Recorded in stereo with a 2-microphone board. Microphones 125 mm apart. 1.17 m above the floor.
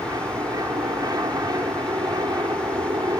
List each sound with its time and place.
0.0 s an aircraft: 30° right (ahead or behind)